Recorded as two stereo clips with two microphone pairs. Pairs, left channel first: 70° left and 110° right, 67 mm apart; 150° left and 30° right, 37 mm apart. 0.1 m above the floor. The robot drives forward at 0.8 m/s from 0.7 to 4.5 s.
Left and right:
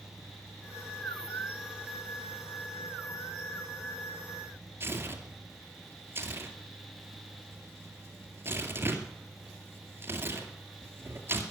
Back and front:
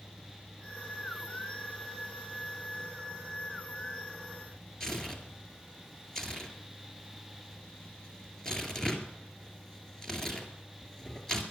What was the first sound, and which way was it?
Tearing paper, 140° right.